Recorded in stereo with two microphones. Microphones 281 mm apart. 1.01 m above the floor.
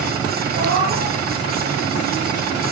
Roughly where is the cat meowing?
Left.